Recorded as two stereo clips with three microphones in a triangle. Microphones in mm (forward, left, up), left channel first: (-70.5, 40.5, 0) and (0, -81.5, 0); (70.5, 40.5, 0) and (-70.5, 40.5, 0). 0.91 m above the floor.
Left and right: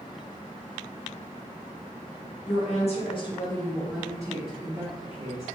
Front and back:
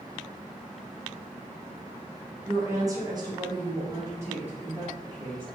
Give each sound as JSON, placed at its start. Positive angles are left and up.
{"t": 2.5, "sound": "a woman speaking", "azimuth_deg": 115, "distance_m": 0.9}